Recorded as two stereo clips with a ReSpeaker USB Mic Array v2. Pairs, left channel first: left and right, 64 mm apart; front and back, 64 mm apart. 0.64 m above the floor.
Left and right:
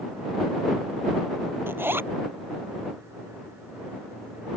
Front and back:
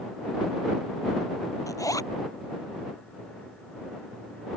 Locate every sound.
1.7 s a zipper: 30° right